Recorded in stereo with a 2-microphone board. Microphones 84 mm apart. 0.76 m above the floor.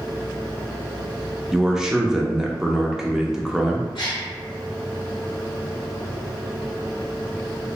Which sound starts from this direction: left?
A gasp, at 4.0 s.